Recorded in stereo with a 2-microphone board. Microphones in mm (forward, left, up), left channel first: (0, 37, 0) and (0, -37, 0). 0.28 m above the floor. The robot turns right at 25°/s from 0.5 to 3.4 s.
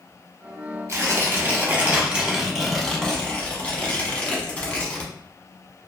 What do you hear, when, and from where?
0.9 s tearing paper: 45° right, 0.8 m; by 5.1 s 20° left, 0.8 m